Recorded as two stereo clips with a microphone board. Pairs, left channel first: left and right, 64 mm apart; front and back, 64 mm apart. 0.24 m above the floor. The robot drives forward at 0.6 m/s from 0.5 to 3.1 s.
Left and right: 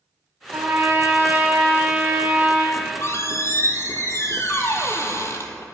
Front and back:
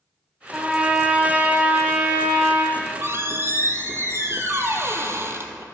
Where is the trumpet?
105° right, 1.4 m; by 2.6 s 150° right, 2 m.